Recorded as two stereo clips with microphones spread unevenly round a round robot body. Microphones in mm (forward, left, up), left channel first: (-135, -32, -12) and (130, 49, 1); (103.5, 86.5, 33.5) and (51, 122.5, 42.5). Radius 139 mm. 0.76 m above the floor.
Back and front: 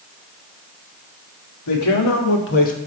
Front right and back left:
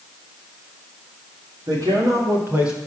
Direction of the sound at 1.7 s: Straight behind.